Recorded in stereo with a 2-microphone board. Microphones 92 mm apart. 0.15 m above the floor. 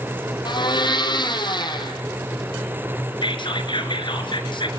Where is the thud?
No thud in this recording.